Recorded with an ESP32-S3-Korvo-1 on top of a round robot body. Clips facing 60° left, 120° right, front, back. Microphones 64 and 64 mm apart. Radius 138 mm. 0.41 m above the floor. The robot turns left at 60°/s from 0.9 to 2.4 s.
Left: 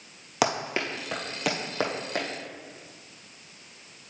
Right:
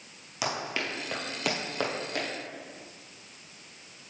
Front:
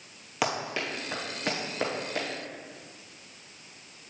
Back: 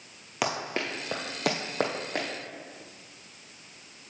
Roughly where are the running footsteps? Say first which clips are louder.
Left 5 dB, even; left.